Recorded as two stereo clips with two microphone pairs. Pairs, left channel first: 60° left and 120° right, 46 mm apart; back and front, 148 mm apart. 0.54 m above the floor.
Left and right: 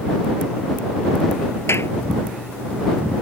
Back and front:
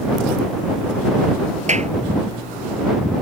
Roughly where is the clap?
Ahead left.